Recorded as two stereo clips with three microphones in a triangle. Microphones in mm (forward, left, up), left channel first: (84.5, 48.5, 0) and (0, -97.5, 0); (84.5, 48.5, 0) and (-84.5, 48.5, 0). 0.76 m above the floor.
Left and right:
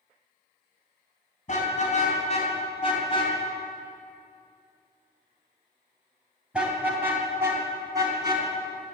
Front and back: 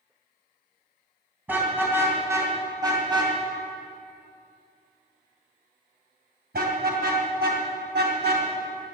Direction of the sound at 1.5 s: 100° left.